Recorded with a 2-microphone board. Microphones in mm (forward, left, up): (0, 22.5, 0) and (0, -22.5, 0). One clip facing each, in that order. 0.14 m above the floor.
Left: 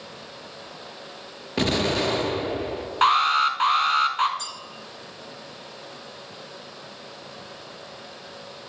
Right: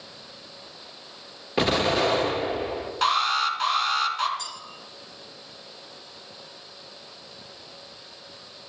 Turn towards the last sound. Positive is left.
turn(degrees=40)  # may be behind; listen again after turning